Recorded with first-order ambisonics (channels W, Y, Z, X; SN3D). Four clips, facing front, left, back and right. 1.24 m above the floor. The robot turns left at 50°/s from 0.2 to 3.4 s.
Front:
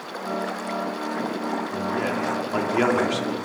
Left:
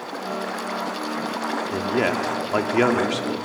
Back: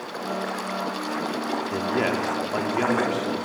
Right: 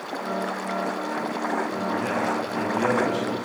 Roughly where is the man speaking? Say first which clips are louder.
Left 3 dB, back 4 dB; behind left.